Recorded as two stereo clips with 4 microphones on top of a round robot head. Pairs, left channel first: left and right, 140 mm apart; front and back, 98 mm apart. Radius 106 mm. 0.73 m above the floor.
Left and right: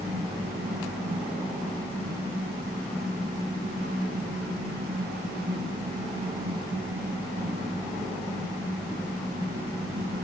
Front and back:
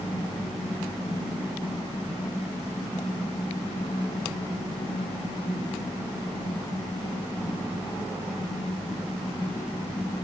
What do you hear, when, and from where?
Only background noise.